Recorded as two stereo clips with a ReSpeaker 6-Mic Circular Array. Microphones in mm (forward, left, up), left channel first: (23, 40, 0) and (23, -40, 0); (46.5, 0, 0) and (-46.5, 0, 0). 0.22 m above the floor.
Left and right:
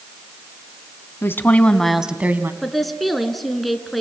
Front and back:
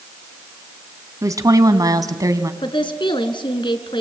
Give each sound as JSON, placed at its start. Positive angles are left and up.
{"t": 1.2, "sound": "a woman speaking", "azimuth_deg": 135, "distance_m": 1.8}
{"t": 2.6, "sound": "a woman speaking", "azimuth_deg": 0, "distance_m": 2.0}